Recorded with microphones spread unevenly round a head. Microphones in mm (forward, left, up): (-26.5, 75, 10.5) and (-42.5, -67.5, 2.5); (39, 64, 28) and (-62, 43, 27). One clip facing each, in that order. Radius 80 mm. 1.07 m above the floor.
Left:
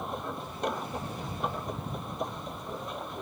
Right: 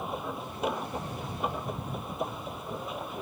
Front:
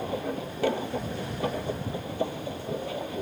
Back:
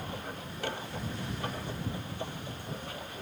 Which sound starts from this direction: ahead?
A machine running, at 0.0 s.